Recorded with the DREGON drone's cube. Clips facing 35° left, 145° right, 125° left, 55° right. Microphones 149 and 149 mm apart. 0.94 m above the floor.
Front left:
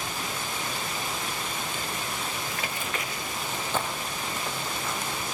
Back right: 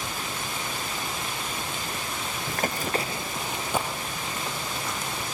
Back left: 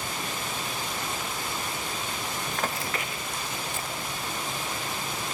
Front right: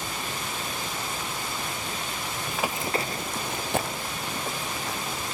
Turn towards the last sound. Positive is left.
turn(degrees=-50)